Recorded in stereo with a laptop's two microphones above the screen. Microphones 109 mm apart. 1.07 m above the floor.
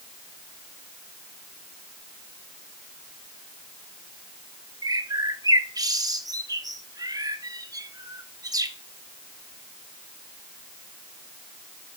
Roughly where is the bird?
Right.